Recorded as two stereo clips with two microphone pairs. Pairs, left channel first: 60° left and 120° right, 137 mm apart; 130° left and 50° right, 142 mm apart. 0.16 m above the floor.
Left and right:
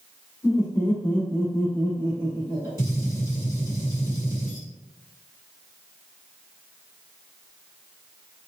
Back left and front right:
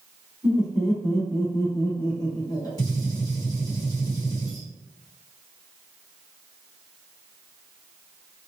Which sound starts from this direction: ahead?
Laughter, at 0.4 s.